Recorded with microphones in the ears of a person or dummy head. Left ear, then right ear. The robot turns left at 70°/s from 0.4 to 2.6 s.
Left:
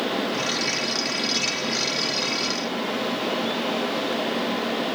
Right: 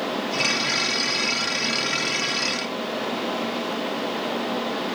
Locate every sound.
Only background noise.